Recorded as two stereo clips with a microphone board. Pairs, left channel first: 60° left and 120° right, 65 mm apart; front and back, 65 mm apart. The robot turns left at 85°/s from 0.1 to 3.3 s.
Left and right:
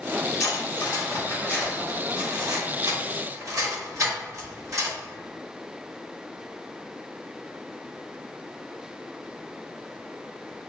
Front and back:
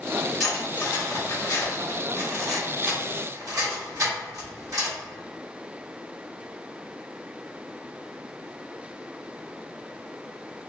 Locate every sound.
0.4 s cutlery clinking: 90° left, 1.7 m; by 5.0 s 155° right, 1.7 m